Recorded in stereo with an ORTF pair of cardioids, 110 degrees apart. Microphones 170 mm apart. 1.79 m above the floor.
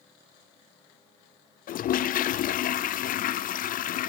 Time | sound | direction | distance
1.7 | a toilet flushing | 55° left | 0.6 m